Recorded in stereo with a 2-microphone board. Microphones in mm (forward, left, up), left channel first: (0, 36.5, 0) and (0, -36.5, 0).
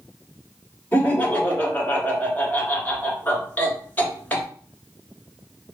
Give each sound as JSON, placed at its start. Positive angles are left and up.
{"t": 0.9, "sound": "laughter", "side_deg": 20, "distance_m": 1.2}